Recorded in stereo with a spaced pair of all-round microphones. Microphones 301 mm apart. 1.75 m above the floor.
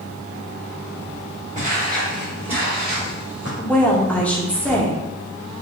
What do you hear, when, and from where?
1.6 s footsteps: 25° right (ahead or behind), 1.8 m; by 3.5 s 55° right (ahead or behind), 3 m
3.6 s a woman speaking: 5° left (ahead or behind), 0.8 m